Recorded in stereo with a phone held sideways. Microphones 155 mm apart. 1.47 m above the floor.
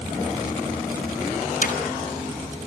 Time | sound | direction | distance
1.6 | hammering | 65° left (ahead or behind) | 5.5 m